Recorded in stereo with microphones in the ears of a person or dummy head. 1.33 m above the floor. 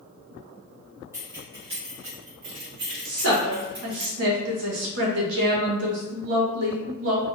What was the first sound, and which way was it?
Keys jangling, 10° right (ahead or behind).